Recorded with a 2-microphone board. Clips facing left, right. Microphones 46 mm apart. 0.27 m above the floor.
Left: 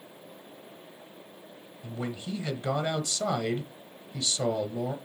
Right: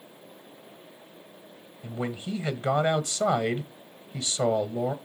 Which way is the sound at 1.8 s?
25° right (ahead or behind).